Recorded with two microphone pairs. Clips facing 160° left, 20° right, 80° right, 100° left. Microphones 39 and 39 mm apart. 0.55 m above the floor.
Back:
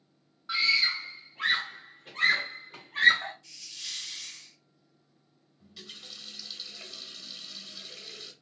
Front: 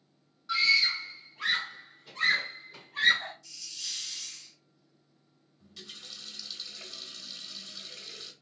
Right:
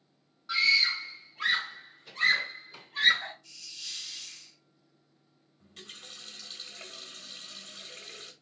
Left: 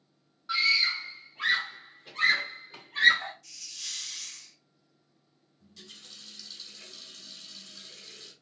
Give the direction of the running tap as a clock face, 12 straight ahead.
4 o'clock.